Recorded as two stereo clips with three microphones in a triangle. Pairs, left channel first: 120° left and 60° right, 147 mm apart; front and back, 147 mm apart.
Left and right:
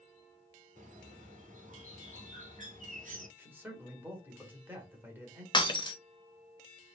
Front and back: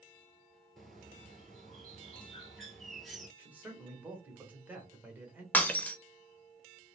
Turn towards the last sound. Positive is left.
turn(degrees=75)